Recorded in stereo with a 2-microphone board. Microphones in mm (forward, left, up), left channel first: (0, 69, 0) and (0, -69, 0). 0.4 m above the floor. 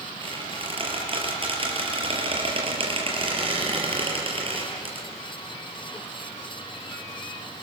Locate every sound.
0.2 s a squeak: 40° right (ahead or behind), 6 m